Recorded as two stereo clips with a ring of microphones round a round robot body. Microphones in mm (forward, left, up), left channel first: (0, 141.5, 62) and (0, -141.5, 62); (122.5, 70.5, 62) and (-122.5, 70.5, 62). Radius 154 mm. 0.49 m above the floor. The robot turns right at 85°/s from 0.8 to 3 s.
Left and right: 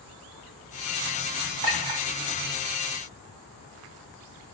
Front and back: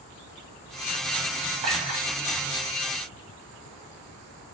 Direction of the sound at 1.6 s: 150° right.